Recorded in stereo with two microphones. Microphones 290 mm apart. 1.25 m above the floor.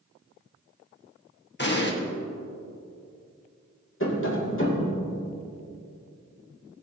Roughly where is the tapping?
Left.